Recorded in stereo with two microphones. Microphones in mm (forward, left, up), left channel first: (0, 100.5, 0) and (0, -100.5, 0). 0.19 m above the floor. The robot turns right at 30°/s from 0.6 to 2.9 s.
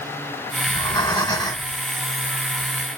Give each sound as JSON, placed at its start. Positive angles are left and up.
{"t": 0.7, "sound": "breathing", "side_deg": 25, "distance_m": 1.3}